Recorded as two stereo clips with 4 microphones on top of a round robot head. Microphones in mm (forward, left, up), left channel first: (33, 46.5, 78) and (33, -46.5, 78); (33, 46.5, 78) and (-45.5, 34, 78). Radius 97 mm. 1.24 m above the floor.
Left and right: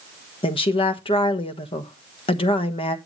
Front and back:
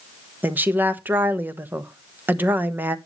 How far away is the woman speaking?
About 1.3 m.